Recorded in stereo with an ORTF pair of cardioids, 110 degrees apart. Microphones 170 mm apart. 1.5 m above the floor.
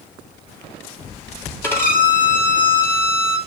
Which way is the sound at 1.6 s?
10° left.